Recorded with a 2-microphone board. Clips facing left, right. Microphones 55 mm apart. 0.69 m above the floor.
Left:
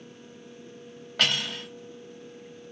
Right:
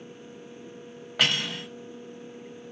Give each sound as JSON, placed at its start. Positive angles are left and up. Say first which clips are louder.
{"t": 1.2, "sound": "cutlery clinking", "louder": "right 1 dB", "side_deg": -10, "distance_m": 1.3}